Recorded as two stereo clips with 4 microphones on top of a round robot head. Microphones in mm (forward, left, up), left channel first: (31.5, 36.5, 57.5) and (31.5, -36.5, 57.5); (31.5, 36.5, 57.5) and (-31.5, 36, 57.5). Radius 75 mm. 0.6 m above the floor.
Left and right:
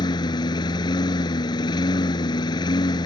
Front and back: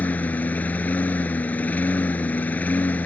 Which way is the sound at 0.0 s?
65° left.